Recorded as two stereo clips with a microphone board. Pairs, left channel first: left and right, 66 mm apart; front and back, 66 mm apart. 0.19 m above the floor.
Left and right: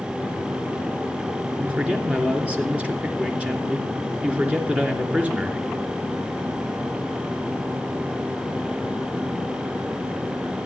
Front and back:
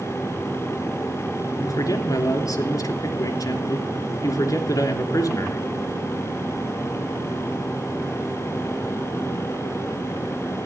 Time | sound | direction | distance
1.6 | a man speaking | 20° right | 3 m